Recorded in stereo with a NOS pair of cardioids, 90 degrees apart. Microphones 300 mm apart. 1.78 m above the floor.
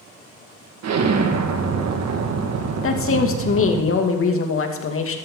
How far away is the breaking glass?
I don't hear breaking glass.